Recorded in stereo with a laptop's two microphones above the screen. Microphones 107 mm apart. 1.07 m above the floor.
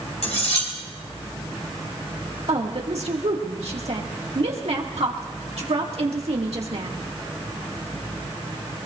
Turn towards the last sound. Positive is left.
turn(degrees=-70)  # may be behind; listen again after turning